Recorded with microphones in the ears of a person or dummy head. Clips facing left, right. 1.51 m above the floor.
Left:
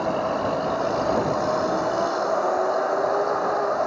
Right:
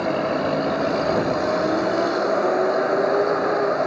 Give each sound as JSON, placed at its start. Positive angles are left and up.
{"t": 0.0, "sound": "a vehicle", "side_deg": -30}